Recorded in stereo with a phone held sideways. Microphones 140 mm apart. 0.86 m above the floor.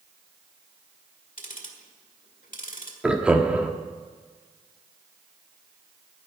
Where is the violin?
I don't hear a violin.